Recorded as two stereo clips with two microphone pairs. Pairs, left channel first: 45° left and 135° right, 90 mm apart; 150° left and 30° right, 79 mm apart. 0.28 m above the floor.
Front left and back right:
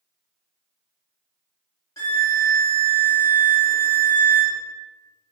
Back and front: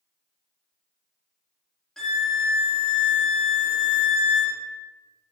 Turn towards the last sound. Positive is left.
turn(degrees=65)